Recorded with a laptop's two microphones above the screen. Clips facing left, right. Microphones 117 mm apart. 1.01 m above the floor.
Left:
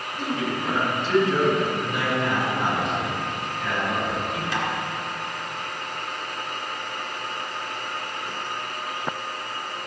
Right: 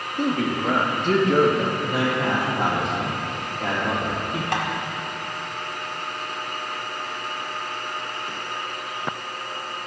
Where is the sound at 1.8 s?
55° right (ahead or behind), 2.5 m.